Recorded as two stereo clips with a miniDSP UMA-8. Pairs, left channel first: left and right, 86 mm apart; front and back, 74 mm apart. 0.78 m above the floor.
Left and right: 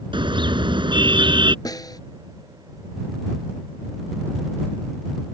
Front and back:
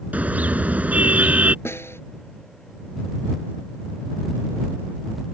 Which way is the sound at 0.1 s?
110° right.